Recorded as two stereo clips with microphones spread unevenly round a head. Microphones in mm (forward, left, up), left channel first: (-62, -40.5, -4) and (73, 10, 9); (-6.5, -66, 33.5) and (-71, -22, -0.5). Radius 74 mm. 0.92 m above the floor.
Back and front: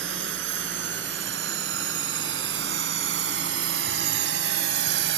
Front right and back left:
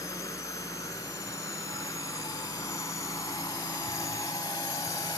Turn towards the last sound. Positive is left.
turn(degrees=30)